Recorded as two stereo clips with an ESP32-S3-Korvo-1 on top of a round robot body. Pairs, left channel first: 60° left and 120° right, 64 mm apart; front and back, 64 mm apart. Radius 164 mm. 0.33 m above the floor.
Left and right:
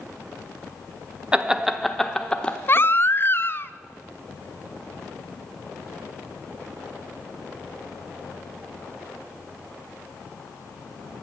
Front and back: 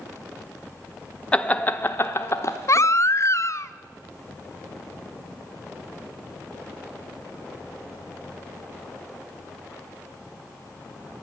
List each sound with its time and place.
1.3 s laughter: 60° right, 1.1 m; by 2.9 s straight ahead, 1.4 m
2.7 s a baby crying: 20° left, 0.6 m